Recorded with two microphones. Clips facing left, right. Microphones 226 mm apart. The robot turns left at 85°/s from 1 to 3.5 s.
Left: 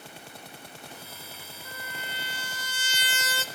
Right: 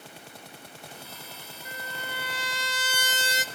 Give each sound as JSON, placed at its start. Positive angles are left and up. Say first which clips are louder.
{"t": 1.6, "sound": "a trumpet", "louder": "right 3 dB", "azimuth_deg": -15, "distance_m": 0.7}